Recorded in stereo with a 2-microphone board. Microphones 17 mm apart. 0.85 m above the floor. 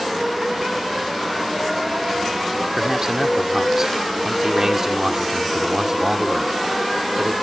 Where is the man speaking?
30° right (ahead or behind).